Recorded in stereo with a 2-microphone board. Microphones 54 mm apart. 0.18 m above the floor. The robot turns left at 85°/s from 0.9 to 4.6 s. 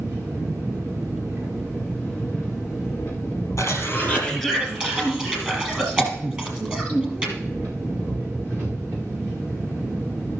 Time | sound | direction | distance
0.0 | an engine running | 95° right | 5 m
3.6 | a cough | 60° left (ahead or behind) | 4 m